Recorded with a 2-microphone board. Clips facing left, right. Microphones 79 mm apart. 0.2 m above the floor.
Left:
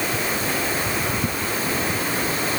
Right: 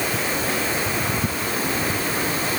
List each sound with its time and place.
Only background noise.